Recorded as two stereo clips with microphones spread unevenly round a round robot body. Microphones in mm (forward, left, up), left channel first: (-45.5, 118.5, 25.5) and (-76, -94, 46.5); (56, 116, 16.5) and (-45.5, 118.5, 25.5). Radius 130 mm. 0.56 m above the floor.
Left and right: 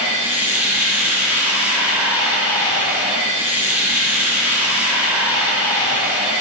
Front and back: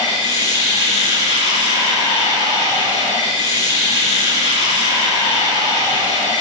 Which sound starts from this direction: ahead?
Running water, at 0.0 s.